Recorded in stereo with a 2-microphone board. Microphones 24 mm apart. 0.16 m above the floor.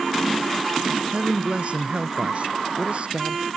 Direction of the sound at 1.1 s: 45° right (ahead or behind).